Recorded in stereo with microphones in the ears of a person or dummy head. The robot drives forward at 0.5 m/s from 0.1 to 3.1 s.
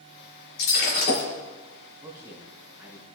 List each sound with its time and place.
0.6 s breaking glass: 60° left (ahead or behind), 3 m; by 1.3 s 55° left (ahead or behind), 3 m
2.0 s a man speaking: 10° right (ahead or behind), 4.5 m